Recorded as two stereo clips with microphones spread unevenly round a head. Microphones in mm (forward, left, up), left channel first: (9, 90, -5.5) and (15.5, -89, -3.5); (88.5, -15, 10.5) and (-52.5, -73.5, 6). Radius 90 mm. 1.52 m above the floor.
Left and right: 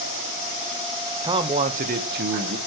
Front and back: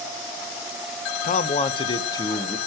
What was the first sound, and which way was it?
A man speaking, 15° right.